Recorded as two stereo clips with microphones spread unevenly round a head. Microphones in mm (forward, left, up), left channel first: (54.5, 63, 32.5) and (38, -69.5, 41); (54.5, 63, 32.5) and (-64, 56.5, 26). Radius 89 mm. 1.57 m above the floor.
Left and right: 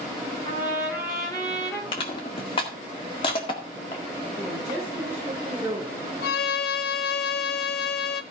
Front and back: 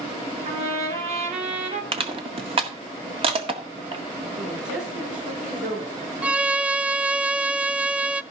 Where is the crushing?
145° left, 1.7 m.